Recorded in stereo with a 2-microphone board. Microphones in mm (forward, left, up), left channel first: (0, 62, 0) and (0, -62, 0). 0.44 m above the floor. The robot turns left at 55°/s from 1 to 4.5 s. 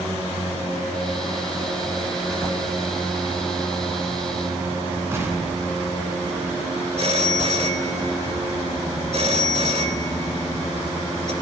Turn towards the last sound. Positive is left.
turn(degrees=-50)  # may be behind; listen again after turning